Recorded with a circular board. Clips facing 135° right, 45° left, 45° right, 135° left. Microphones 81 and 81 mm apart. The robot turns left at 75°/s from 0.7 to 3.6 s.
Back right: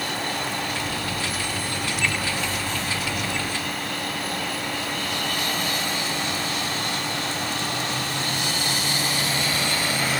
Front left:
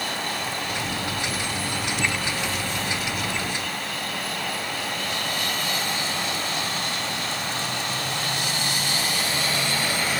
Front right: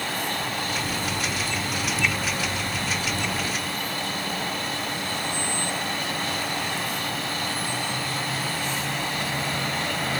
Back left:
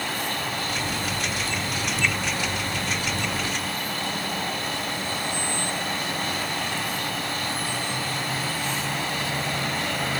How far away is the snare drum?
No snare drum in this recording.